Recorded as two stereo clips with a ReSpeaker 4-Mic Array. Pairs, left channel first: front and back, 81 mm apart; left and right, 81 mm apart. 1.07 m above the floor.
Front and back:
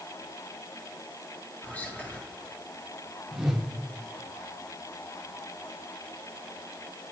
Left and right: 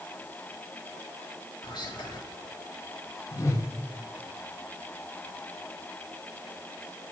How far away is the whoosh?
About 0.7 m.